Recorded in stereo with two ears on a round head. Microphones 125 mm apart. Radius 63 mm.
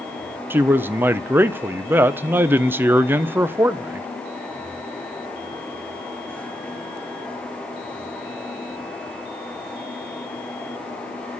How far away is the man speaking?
About 0.6 m.